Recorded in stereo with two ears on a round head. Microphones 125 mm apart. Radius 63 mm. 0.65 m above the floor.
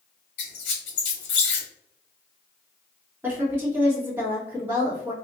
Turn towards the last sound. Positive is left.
turn(degrees=-15)  # may be behind; listen again after turning